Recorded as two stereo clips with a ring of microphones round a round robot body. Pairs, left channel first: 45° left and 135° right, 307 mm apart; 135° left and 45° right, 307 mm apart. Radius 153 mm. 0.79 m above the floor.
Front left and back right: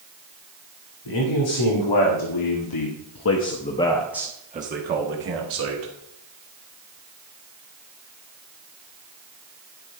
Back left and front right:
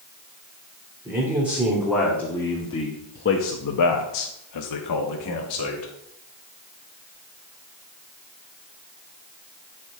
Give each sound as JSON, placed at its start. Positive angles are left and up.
{"t": 1.1, "sound": "a man speaking", "azimuth_deg": 40, "distance_m": 2.0}